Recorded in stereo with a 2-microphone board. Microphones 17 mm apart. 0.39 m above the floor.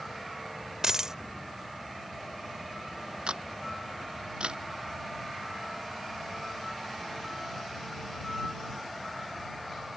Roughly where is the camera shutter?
Right.